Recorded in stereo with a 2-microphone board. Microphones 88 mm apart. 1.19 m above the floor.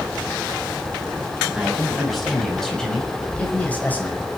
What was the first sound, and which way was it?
A man speaking, centre (ahead or behind).